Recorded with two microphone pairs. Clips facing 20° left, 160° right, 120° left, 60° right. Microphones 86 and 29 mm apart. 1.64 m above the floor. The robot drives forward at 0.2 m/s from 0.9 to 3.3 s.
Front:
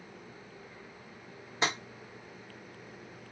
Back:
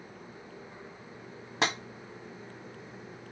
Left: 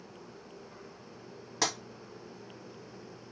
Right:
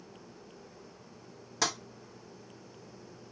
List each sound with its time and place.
1.6 s tapping: 160° right, 1.5 m